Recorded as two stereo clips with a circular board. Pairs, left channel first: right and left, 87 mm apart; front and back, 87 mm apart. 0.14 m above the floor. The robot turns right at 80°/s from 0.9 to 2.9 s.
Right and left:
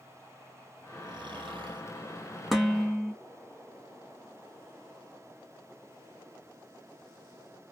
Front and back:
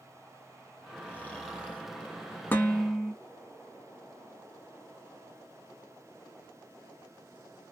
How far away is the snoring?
About 1.6 m.